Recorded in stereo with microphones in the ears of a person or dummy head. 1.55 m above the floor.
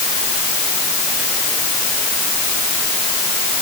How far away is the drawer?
I don't hear a drawer.